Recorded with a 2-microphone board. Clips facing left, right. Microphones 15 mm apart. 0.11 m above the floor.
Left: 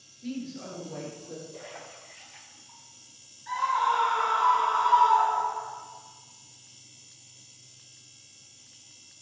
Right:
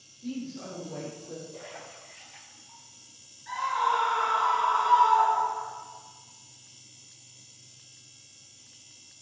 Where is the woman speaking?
45° left (ahead or behind), 1.8 m.